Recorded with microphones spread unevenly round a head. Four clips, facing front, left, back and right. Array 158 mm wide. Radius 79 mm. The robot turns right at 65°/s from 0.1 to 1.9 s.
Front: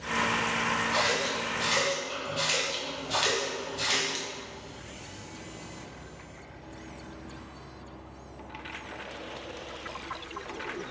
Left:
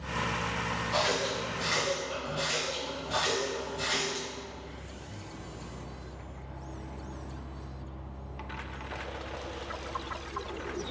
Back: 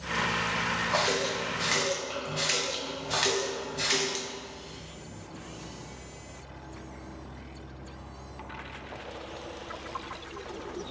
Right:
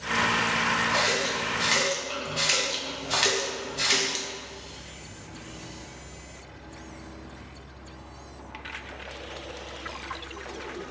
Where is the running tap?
175° right, 0.8 m; by 4.3 s 110° right, 0.8 m.